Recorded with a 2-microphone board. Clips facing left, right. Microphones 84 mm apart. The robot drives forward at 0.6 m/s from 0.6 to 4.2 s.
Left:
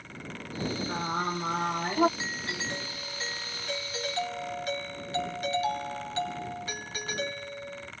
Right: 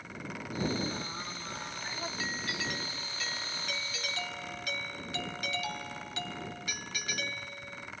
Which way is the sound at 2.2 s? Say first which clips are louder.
Left 1 dB; 25° left (ahead or behind).